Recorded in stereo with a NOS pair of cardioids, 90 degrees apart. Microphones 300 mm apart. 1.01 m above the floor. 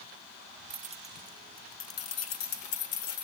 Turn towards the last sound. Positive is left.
turn(degrees=70)